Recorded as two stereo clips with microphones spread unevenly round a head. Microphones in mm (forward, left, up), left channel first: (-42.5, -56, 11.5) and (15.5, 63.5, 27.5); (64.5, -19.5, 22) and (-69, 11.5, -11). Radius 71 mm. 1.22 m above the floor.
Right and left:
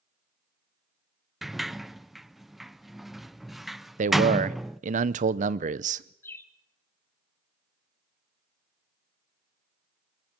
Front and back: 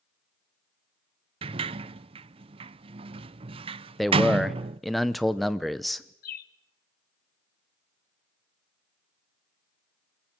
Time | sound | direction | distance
1.4 | a sliding door | 160° left | 0.5 m
4.0 | a man speaking | 85° left | 0.8 m
6.2 | a bird | 40° right | 1.0 m